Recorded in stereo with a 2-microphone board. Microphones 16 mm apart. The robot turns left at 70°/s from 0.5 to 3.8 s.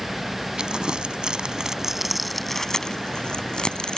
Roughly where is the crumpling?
Right.